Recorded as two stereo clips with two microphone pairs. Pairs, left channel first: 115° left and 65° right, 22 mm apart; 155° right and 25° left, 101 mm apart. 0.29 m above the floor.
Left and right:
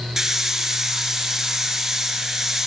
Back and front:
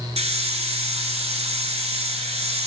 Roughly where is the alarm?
I don't hear an alarm.